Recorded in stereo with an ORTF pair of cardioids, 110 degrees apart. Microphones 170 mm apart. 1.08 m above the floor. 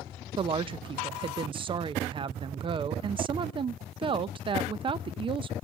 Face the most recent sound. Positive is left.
turn(degrees=-30)